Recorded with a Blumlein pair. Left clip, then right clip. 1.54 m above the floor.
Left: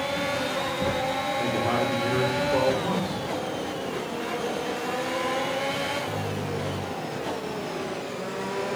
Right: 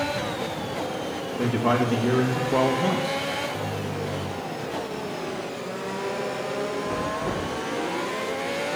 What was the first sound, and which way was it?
A man speaking, 55° right.